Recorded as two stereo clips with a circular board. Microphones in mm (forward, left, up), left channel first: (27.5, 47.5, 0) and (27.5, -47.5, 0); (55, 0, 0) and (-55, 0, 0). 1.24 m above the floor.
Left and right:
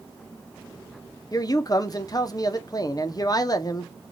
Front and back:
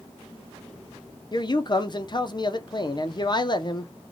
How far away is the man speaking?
About 0.5 m.